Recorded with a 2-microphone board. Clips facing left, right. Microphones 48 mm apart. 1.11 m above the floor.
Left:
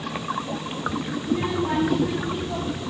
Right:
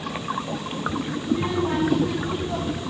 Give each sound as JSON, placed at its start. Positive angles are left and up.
{"t": 1.2, "sound": "a child speaking", "side_deg": 25, "distance_m": 2.0}